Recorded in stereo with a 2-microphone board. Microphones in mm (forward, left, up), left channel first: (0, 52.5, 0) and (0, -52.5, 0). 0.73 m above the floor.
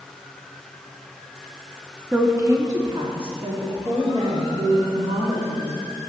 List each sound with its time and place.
2.1 s a woman speaking: 20° right (ahead or behind), 1.1 m; by 6.1 s 75° right (ahead or behind), 3 m